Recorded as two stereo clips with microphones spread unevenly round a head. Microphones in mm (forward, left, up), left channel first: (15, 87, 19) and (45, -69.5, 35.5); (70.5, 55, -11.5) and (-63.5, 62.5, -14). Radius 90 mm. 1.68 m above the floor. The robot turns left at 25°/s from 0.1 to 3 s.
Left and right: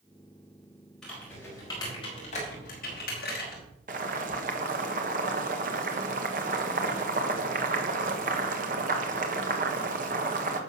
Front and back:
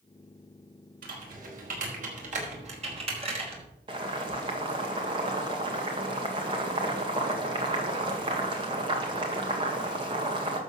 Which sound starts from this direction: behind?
Typing on a keyboard, at 1.0 s.